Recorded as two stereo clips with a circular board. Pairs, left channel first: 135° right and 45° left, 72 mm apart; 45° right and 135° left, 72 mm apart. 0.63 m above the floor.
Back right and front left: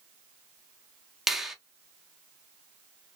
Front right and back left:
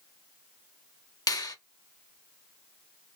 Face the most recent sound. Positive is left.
turn(degrees=-40)